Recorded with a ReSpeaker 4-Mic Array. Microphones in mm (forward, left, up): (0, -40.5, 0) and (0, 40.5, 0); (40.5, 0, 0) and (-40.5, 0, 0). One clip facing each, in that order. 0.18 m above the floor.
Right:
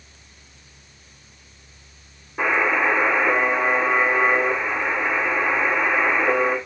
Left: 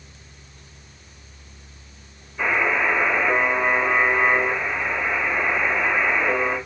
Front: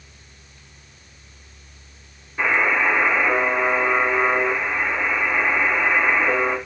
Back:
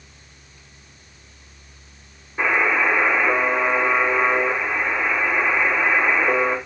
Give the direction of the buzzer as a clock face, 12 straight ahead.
3 o'clock.